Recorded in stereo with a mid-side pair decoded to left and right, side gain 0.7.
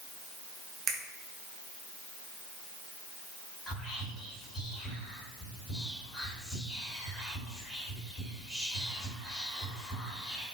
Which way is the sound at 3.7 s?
25° left.